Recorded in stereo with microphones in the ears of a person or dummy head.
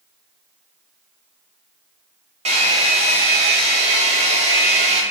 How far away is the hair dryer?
About 0.6 m.